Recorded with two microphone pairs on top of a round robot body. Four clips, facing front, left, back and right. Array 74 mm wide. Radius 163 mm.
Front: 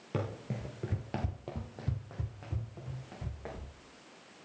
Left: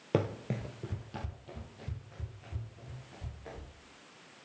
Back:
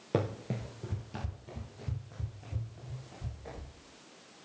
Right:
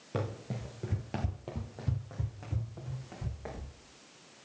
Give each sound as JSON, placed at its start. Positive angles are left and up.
{"t": 0.1, "sound": "running footsteps", "azimuth_deg": 125, "distance_m": 0.9}